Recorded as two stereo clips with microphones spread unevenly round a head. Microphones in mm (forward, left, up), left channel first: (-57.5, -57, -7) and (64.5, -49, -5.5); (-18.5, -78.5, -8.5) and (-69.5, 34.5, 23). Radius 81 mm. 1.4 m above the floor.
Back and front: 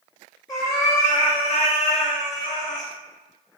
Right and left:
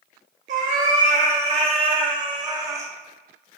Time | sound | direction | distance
0.5 | a cat meowing | 120° left | 2 m